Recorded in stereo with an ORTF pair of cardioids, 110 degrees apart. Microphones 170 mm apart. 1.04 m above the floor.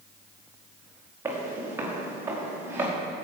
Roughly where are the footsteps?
Ahead.